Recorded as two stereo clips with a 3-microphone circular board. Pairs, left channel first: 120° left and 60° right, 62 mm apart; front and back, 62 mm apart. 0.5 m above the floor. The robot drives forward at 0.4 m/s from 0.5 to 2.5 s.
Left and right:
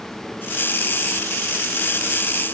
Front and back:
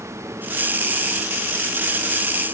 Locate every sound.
Only background noise.